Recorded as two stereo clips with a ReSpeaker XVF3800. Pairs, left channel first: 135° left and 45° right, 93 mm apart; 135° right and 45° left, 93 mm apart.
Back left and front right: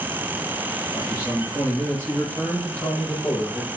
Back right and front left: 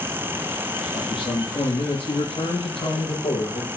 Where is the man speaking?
160° right, 7 m; by 3.7 s 150° right, 8 m.